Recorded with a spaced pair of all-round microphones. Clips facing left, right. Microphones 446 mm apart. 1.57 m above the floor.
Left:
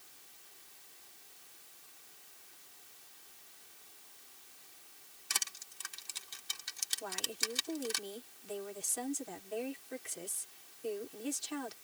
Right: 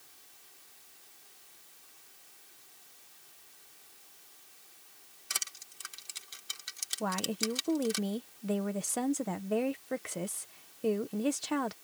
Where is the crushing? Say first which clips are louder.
Even; 10° left (ahead or behind).